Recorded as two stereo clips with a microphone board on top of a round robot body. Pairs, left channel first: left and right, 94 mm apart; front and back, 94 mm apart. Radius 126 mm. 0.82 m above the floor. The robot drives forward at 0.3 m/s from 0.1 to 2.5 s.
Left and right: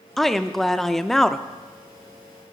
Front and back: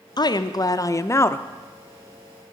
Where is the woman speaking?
5° left, 0.9 m; by 1.4 s 10° left, 0.7 m.